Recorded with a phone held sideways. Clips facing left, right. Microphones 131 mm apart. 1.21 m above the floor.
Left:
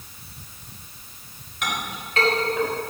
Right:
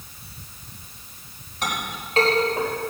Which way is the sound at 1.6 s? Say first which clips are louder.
Right 1 dB; 35° right (ahead or behind).